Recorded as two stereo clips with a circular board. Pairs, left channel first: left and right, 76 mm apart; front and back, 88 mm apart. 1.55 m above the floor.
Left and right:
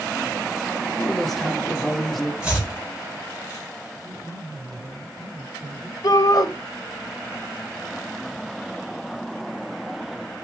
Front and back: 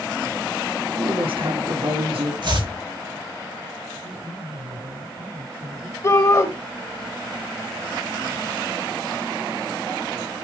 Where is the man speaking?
165° right, 4 m.